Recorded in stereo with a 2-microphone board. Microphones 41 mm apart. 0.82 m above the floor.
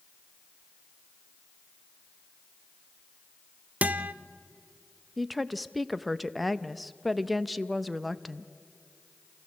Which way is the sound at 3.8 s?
40° right (ahead or behind).